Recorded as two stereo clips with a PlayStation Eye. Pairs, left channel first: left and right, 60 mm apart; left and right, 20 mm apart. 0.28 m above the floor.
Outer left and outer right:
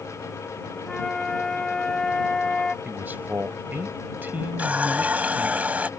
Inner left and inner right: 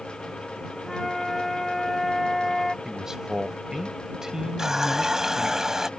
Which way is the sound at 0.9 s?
15° left (ahead or behind).